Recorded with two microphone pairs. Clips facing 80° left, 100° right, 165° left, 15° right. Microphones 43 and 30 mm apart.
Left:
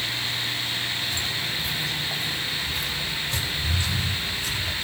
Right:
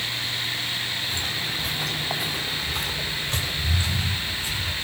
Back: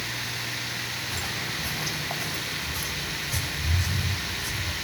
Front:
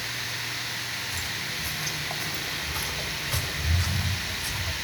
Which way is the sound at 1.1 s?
160° right.